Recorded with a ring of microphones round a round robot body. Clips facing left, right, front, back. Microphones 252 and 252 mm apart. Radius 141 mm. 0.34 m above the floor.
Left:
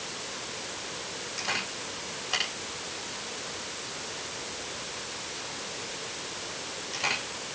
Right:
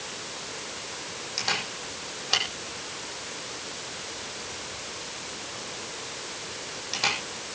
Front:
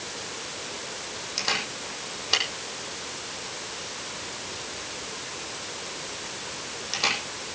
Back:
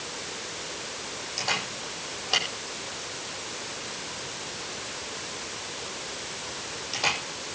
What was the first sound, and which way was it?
A camera shutter, 60° right.